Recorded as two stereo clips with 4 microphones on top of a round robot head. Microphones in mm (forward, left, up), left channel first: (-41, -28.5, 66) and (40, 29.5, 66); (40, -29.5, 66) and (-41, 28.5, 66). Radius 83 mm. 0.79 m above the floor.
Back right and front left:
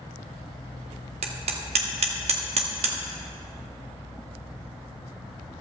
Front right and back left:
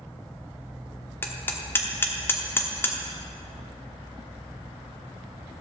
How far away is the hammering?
About 1.3 m.